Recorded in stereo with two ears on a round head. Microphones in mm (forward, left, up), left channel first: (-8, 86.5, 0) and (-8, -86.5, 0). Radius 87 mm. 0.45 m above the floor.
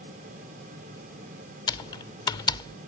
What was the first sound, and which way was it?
Typing on a keyboard, 20° left (ahead or behind).